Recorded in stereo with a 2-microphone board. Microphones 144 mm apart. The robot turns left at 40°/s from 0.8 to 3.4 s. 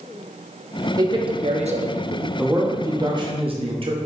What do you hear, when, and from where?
1.0 s a man speaking: 25° right, 0.6 m; by 2.3 s 80° right, 0.6 m
2.4 s a man speaking: 10° right, 0.8 m; by 4.0 s 50° right, 0.8 m